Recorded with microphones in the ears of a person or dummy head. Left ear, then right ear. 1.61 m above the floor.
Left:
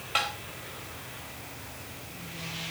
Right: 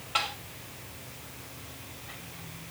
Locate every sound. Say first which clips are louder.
0.1 s tapping: left 1 dB; 15° left (ahead or behind), 2 m